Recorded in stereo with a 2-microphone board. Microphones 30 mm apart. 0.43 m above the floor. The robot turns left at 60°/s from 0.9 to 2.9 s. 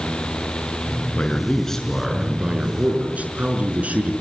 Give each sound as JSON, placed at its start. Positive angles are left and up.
{"t": 1.1, "sound": "a man speaking", "azimuth_deg": 50, "distance_m": 5.5}